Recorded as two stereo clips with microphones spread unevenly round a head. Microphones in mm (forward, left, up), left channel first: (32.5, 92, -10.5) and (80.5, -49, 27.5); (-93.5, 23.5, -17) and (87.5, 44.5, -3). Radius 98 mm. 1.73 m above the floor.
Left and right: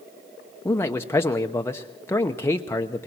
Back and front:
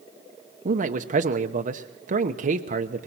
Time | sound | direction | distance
0.7 | a man speaking | 30° left | 0.9 m